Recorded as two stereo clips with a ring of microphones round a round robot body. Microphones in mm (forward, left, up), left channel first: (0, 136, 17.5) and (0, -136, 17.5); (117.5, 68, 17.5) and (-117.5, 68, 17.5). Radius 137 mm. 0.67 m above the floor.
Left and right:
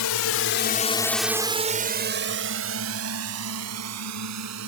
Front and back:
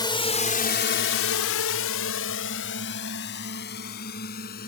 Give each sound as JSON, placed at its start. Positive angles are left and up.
{"t": 0.0, "sound": "a drone", "azimuth_deg": 70}